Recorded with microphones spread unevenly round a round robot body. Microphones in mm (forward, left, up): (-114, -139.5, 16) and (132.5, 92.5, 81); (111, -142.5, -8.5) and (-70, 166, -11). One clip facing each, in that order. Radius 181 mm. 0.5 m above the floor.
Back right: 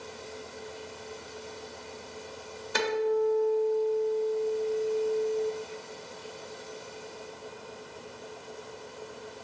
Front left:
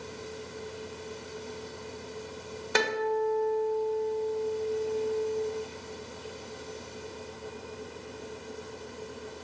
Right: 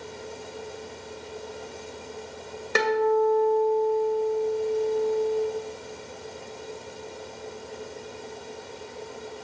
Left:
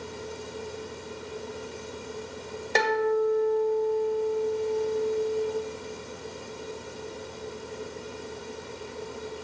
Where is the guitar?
10° left, 2 m.